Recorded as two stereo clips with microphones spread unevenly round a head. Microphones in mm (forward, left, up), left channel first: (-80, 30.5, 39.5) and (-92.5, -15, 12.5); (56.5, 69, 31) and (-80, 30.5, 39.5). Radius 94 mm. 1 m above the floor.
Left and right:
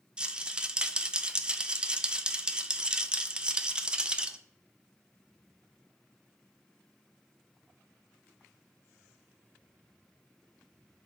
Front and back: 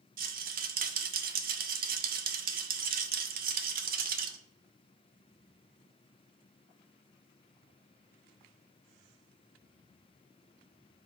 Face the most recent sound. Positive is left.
turn(degrees=175)